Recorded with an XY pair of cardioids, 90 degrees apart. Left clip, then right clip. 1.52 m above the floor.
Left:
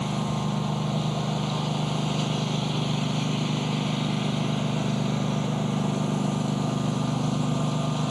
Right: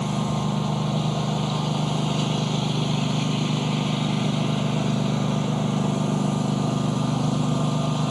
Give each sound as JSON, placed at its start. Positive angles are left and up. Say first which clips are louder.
{"t": 0.0, "sound": "a lawn mower", "louder": "right 2 dB", "azimuth_deg": -20}